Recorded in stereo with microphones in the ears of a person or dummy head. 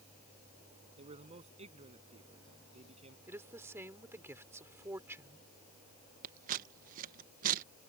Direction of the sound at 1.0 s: 35° right (ahead or behind).